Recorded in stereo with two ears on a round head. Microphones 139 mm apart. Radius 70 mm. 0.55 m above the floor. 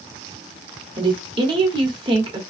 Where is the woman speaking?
35° right (ahead or behind), 1.2 m.